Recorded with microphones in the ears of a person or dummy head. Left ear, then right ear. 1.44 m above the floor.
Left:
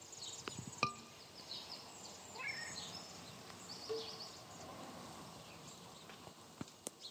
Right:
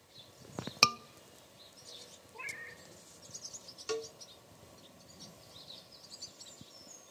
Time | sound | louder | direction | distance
0.8 | a scream | right 12 dB | 75° right (ahead or behind) | 0.7 m
2.3 | a cat meowing | right 1 dB | 10° right (ahead or behind) | 2 m
3.9 | a cowbell | right 6 dB | 65° right (ahead or behind) | 0.6 m